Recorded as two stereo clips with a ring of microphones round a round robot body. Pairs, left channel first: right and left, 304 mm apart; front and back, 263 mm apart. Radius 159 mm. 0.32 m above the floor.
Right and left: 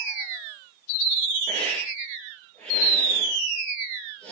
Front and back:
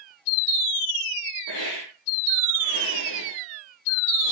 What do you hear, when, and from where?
1.5 s a hiss: 5° right, 7 m